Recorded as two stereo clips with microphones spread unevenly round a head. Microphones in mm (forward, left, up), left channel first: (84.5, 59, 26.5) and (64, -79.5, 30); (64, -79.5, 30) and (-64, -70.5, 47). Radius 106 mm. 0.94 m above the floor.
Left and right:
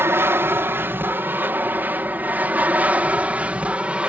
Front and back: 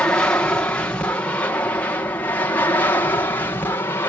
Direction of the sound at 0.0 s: 55° right.